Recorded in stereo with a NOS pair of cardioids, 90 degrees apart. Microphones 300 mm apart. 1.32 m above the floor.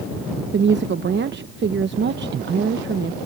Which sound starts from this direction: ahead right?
A woman speaking, at 0.5 s.